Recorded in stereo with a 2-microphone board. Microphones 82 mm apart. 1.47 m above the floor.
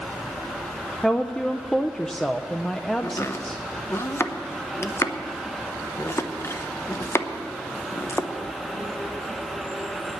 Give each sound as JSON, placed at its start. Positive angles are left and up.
{"t": 1.0, "sound": "a woman speaking", "side_deg": 10, "distance_m": 0.5}
{"t": 3.0, "sound": "chopping", "side_deg": 35, "distance_m": 0.8}